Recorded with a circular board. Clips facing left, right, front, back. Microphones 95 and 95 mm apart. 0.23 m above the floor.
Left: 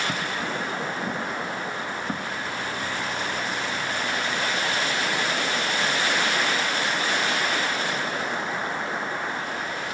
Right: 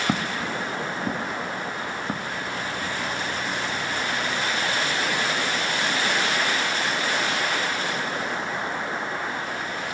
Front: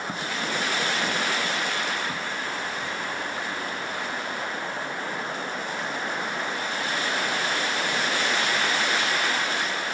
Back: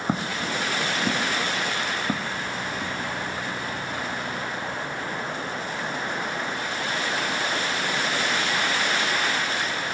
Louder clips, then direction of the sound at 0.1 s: Right 2 dB, back 4 dB; 135° right.